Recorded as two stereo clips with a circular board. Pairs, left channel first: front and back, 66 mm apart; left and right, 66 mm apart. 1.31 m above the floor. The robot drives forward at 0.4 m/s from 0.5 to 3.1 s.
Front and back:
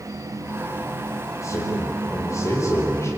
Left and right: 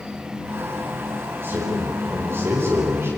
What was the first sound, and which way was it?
A man speaking, 40° right.